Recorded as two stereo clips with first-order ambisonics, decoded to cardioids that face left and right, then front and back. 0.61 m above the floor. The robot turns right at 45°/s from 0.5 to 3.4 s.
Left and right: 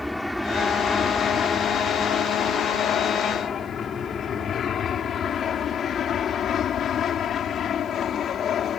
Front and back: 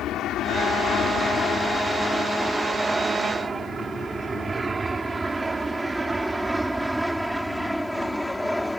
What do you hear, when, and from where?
0.0 s an aircraft: 5° left; by 8.8 s 85° left